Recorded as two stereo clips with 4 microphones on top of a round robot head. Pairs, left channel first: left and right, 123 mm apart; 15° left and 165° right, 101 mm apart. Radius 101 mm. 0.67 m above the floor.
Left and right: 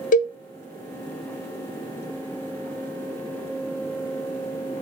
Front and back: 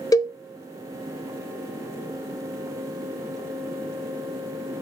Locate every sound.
0.1 s a cowbell: 70° left, 0.6 m